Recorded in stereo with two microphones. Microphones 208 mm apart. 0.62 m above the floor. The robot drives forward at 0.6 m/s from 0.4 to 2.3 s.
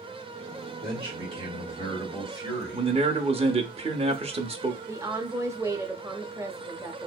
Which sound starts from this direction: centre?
A woman speaking, at 4.9 s.